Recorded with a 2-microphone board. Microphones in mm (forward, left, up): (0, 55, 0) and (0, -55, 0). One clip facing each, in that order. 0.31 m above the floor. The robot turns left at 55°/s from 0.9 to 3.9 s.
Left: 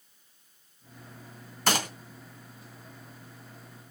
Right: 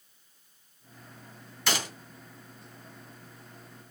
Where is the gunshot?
45° left (ahead or behind), 2.5 m; by 1.9 s 50° left (ahead or behind), 2.5 m.